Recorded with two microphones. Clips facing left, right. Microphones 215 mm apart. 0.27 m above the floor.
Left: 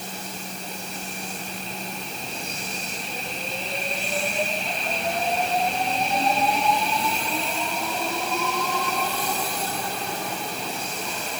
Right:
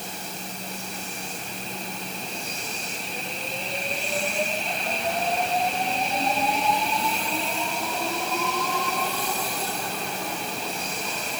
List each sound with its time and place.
Only background noise.